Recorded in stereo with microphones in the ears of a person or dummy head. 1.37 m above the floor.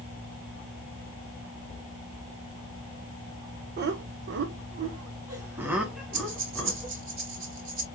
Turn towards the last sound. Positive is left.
turn(degrees=-75)  # may be behind; listen again after turning